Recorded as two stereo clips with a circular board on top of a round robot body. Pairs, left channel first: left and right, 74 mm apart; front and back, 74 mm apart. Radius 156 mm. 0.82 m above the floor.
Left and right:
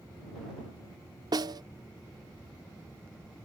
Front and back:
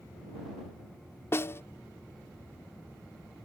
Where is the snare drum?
60° right.